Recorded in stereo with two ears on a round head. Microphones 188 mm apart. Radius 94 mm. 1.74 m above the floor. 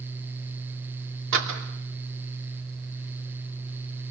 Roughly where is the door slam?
Right.